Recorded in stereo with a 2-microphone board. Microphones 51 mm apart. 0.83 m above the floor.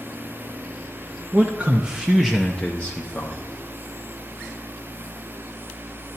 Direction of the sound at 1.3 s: 30° right (ahead or behind).